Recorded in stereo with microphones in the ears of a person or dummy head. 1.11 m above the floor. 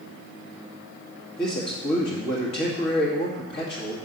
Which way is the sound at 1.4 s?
60° left (ahead or behind).